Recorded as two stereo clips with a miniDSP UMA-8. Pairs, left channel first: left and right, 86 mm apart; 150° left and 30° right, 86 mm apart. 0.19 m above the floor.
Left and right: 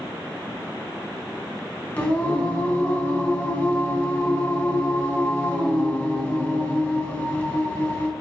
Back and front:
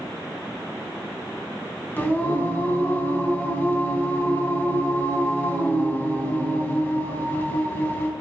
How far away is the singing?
About 1.4 m.